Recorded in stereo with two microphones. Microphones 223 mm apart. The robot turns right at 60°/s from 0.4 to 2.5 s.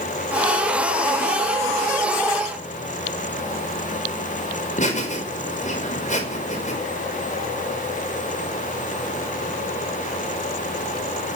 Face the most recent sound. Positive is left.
turn(degrees=35)  # may be behind; listen again after turning